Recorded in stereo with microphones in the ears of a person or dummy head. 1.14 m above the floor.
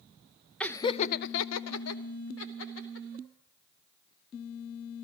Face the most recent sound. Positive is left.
turn(degrees=65)  # may be behind; listen again after turning